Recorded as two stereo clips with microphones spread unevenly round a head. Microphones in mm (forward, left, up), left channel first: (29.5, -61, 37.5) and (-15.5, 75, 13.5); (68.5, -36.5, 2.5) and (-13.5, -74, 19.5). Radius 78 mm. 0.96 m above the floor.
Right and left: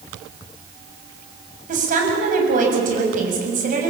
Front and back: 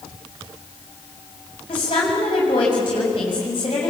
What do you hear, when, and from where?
1.7 s a woman speaking: 75° left, 7 m